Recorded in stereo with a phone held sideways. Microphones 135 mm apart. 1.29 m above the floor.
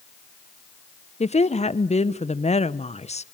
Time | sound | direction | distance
1.2 | a woman speaking | 50° left (ahead or behind) | 0.8 m